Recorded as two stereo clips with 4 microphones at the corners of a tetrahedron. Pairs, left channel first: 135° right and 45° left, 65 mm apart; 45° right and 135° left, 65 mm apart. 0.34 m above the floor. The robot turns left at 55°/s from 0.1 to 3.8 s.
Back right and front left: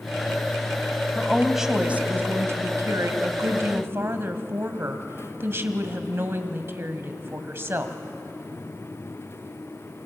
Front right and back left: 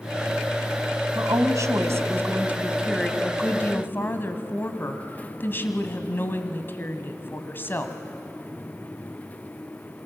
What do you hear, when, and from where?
1.1 s a woman speaking: 150° left, 1.9 m; by 8.0 s 5° left, 1.9 m